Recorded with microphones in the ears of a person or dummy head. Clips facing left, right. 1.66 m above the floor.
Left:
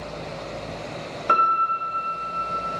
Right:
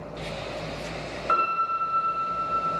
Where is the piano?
55° left (ahead or behind), 1.1 m.